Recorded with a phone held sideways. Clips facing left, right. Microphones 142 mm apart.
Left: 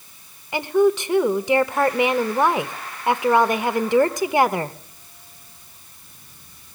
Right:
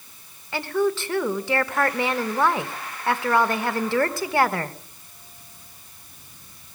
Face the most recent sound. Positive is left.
turn(degrees=15)  # may be behind; listen again after turning